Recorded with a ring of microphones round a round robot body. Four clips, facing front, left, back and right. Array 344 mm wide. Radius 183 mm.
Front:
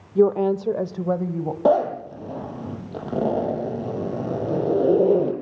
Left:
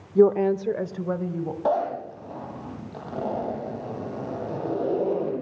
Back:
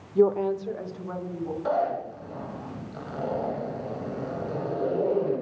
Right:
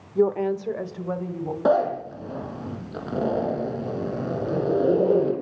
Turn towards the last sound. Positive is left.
turn(degrees=-25)